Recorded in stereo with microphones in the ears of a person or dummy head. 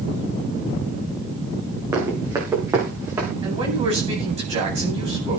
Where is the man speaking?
35° right (ahead or behind), 9.5 m.